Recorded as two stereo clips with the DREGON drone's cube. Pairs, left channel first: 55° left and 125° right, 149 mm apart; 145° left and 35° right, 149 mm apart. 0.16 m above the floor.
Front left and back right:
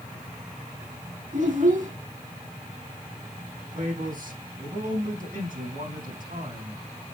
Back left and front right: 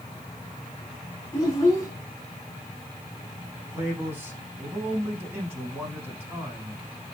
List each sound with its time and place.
1.3 s a child speaking: 145° right, 4.5 m
3.7 s a man speaking: 110° right, 5.5 m